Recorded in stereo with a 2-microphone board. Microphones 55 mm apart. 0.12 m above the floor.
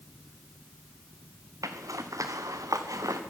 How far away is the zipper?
About 3 m.